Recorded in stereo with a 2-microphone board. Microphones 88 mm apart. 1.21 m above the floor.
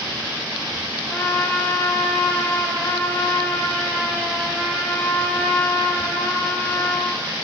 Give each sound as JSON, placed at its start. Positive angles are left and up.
{"t": 1.1, "sound": "a trumpet", "side_deg": 25, "distance_m": 2.5}